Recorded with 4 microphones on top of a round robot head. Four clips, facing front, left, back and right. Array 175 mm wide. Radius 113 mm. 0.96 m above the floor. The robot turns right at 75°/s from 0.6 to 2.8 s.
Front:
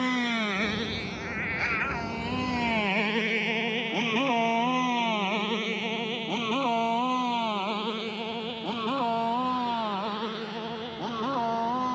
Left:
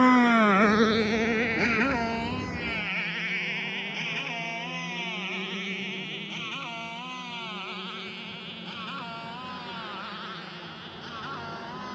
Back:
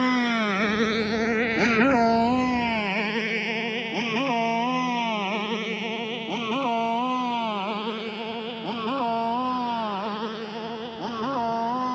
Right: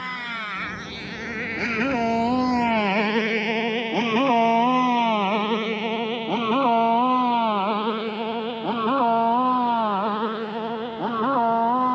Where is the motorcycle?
105° left; by 11.9 s 100° right.